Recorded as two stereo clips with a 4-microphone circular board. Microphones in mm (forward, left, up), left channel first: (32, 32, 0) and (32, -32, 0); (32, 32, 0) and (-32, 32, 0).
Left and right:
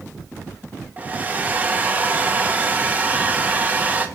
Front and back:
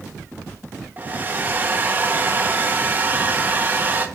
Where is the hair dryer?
140° right, 1.0 m.